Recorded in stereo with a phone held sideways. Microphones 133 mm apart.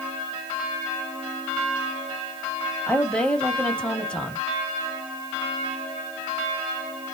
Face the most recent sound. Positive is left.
turn(degrees=5)  # may be behind; listen again after turning